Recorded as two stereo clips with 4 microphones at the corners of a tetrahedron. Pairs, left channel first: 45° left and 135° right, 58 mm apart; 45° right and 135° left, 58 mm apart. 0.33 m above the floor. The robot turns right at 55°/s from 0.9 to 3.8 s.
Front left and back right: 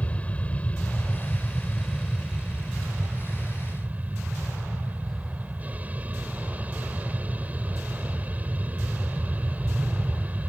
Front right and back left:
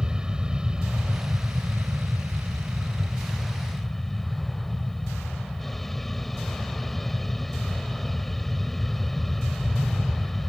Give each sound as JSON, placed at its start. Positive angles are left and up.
{"t": 0.0, "sound": "an aircraft", "azimuth_deg": 75}